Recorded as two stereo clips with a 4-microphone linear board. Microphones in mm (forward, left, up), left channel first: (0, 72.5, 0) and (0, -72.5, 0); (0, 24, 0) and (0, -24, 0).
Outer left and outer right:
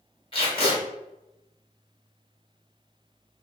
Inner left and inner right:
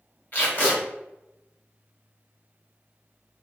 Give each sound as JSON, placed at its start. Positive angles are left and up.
{"t": 0.3, "sound": "tape being pulled", "side_deg": 40, "distance_m": 1.3}